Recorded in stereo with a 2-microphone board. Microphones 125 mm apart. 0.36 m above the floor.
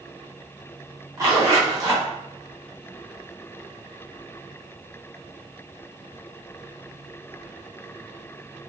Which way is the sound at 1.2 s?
25° right (ahead or behind).